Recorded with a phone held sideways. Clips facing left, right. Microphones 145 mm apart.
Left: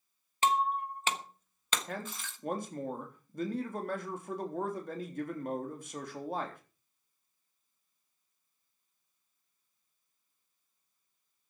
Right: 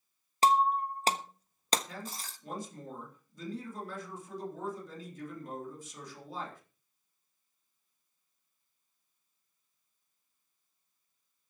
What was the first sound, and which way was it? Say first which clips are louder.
Breaking glass: right 4 dB; 35° right (ahead or behind).